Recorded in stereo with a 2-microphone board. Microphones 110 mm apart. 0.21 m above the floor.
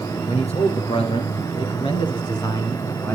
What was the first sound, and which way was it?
A man speaking, 65° left (ahead or behind).